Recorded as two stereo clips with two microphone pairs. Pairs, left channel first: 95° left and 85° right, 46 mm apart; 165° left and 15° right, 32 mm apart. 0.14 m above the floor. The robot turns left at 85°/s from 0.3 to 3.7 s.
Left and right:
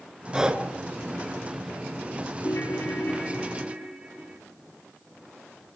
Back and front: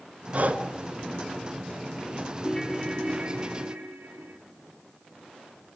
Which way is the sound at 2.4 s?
100° left.